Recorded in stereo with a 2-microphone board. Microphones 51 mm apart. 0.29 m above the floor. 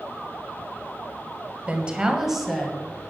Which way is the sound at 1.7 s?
25° right (ahead or behind).